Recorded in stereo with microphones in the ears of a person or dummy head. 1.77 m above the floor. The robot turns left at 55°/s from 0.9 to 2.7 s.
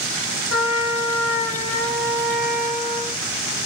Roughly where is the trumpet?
Ahead left.